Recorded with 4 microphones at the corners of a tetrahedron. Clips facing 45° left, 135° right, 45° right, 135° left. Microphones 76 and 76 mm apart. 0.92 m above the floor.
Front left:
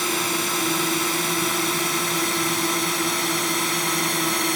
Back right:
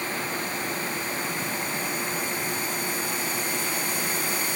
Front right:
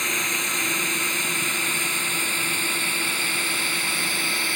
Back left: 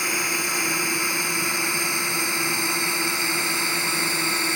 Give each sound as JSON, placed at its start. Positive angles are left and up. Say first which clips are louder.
{"t": 0.0, "sound": "a drone", "louder": "front left 5 dB, back left 1 dB", "azimuth_deg": 55}